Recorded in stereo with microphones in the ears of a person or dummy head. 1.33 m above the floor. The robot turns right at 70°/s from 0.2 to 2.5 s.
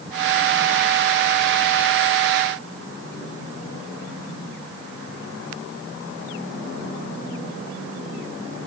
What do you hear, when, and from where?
Only background noise.